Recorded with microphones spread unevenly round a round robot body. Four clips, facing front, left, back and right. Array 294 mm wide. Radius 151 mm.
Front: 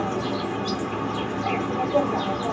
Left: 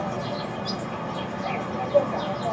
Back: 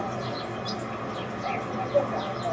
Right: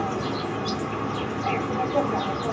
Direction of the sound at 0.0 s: 25° right.